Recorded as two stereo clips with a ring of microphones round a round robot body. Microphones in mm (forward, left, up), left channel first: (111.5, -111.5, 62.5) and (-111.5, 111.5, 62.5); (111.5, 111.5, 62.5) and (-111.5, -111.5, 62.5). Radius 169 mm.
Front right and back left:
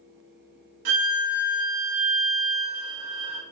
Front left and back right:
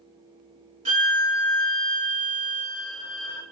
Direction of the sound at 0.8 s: 155° left.